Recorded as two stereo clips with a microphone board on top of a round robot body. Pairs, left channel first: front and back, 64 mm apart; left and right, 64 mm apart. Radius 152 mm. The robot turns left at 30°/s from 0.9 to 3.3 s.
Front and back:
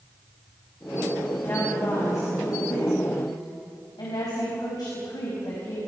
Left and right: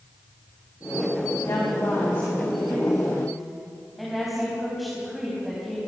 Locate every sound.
1.4 s a woman speaking: 55° left, 5 m; by 5.9 s straight ahead, 5 m